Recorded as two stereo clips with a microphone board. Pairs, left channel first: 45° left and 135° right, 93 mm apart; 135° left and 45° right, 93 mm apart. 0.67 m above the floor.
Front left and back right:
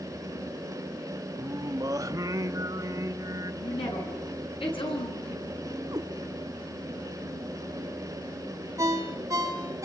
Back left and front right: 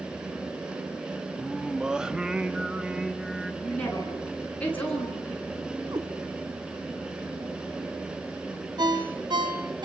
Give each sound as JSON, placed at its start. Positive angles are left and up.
{"t": 1.4, "sound": "singing", "azimuth_deg": -125, "distance_m": 1.1}
{"t": 3.6, "sound": "a woman speaking", "azimuth_deg": 60, "distance_m": 9.0}
{"t": 5.9, "sound": "a cat meowing", "azimuth_deg": -85, "distance_m": 2.0}
{"t": 8.8, "sound": "a ringtone", "azimuth_deg": -80, "distance_m": 2.5}